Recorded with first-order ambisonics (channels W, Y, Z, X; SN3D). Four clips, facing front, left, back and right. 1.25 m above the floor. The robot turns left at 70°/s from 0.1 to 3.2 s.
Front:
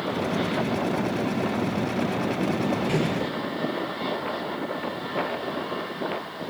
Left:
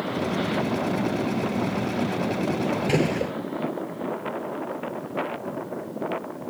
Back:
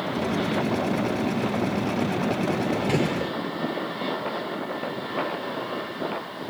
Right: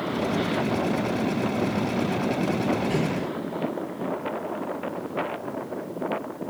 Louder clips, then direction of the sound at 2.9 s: Left 3 dB, back 1 dB; 110° left.